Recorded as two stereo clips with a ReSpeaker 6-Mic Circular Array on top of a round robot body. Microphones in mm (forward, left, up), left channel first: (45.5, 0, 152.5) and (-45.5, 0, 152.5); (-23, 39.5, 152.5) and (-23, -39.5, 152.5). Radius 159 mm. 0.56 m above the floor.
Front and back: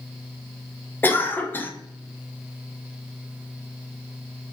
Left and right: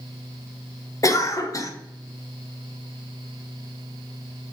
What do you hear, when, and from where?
1.0 s a cough: 60° left, 0.9 m